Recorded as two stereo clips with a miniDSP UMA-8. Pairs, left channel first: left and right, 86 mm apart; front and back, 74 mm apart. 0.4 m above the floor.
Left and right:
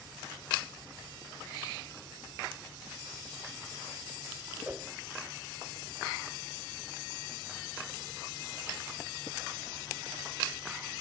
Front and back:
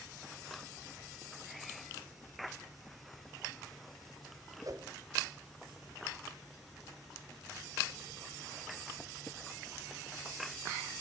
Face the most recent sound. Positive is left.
turn(degrees=-160)